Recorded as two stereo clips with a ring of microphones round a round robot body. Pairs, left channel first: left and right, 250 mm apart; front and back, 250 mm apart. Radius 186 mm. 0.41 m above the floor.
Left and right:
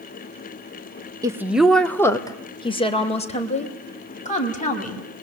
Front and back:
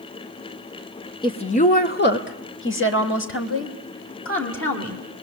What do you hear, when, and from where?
1.2 s a woman speaking: 35° right, 1.3 m; by 5.0 s 30° left, 4.5 m